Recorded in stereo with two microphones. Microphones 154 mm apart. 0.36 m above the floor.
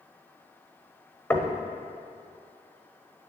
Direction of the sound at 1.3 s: 15° left (ahead or behind).